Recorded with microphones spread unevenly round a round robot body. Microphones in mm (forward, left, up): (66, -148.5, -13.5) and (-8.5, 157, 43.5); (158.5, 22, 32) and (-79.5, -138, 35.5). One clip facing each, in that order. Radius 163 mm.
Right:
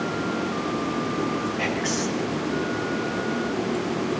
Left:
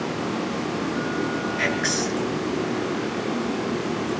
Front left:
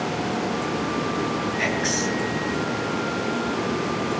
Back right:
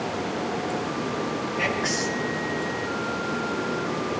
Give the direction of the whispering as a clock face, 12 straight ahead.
9 o'clock.